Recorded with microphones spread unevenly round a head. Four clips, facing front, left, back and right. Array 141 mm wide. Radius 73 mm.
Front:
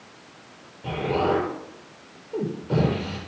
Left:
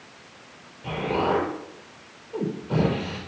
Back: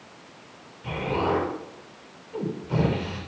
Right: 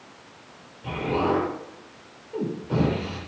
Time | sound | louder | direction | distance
0.8 | an explosion | even, front 2 dB | 5° left | 5.5 m